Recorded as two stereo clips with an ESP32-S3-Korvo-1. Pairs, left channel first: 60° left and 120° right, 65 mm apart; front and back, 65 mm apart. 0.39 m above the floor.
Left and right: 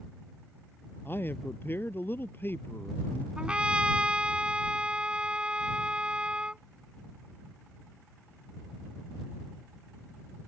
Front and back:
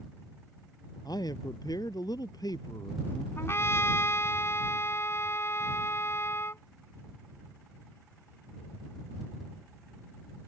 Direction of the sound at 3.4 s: 50° right.